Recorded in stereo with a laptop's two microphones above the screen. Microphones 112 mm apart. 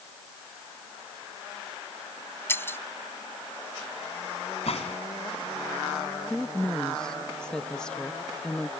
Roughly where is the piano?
I don't hear a piano.